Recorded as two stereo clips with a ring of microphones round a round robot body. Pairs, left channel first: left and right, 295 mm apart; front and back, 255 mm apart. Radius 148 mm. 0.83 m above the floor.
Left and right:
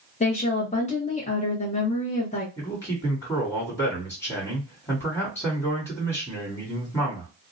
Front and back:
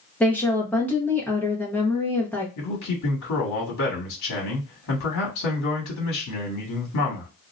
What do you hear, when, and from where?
0.2 s a woman speaking: 75° left, 0.8 m
2.6 s a man speaking: 15° left, 1.4 m